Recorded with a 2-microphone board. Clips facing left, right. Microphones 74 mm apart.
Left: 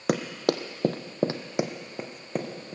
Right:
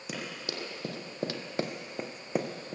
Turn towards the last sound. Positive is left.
turn(degrees=-10)  # may be behind; listen again after turning